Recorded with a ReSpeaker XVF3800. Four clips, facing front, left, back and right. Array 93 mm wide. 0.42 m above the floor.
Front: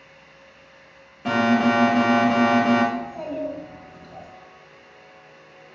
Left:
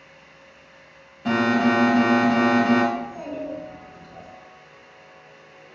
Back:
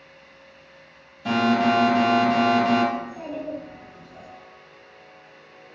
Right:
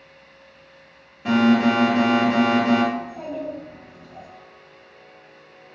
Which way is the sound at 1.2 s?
10° right.